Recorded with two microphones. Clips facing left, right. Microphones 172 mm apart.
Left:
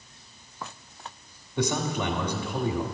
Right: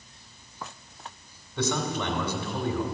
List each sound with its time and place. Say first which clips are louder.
1.6 s a man speaking: left 1 dB; 20° left (ahead or behind), 1.3 m